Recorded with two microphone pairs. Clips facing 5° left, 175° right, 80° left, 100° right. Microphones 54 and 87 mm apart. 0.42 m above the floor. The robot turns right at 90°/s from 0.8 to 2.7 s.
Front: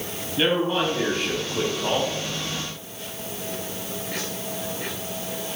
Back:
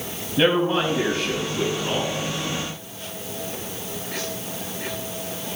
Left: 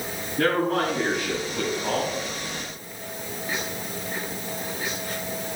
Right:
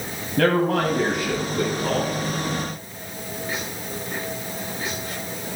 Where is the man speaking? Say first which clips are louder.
Back 3 dB, right 3 dB; 100° right, 2.5 m; by 2.1 s 20° left, 2.5 m.